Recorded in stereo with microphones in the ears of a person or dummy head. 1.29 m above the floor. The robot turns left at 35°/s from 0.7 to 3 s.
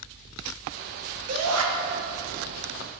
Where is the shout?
80° right, 1.0 m; by 1.6 s 75° right (ahead or behind), 1.0 m.